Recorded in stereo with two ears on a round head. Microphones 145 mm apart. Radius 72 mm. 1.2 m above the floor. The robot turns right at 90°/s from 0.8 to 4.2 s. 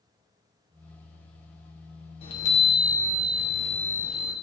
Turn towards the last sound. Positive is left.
turn(degrees=-45)